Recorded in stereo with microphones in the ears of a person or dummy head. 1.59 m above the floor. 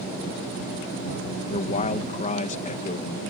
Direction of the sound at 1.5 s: 40° left (ahead or behind).